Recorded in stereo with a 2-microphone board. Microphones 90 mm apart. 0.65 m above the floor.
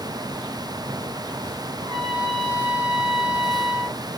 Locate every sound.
1.8 s a trumpet: 75° right (ahead or behind), 3.5 m